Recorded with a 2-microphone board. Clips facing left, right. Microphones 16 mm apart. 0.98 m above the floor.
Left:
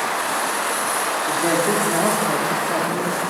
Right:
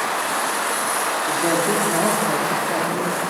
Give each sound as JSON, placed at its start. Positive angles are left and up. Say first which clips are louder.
{"t": 1.3, "sound": "a woman speaking", "louder": "left 1 dB", "side_deg": 25, "distance_m": 3.0}